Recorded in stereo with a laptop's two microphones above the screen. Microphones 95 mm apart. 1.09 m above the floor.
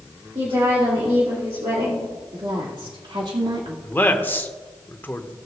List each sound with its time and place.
0.3 s a woman speaking: 75° right (ahead or behind), 3 m
2.3 s a woman speaking: 55° right (ahead or behind), 1.9 m
3.8 s a man speaking: 20° left (ahead or behind), 1.2 m